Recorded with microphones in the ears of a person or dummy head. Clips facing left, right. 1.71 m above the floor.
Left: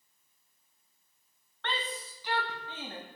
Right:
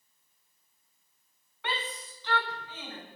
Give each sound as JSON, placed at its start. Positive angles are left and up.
{"t": 1.6, "sound": "a shout", "side_deg": -5, "distance_m": 2.0}